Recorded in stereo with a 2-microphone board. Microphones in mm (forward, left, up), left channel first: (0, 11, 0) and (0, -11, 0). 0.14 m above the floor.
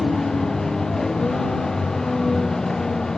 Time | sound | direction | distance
0.0 | a vehicle | 20° left (ahead or behind) | ?